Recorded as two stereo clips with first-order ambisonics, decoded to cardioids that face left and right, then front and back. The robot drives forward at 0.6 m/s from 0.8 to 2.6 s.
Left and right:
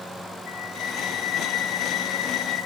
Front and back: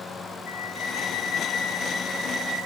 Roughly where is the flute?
Ahead left.